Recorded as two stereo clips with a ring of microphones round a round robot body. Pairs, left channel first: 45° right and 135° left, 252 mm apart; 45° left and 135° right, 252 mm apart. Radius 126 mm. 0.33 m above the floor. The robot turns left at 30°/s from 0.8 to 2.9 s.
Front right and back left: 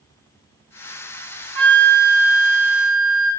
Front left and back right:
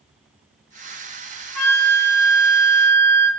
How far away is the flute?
About 2.5 m.